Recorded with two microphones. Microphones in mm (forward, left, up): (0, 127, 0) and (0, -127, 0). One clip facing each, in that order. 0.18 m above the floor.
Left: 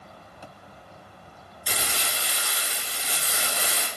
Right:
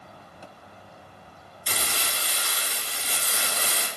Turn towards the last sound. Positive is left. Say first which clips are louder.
# left 1 dB
turn(degrees=10)  # may be behind; listen again after turning